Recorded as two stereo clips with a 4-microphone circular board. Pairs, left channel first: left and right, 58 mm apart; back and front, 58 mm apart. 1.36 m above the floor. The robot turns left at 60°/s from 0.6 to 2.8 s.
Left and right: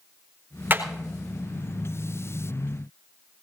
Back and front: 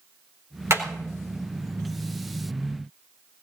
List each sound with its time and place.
0.7 s hammering: 35° right, 4 m; by 0.8 s 40° right, 4 m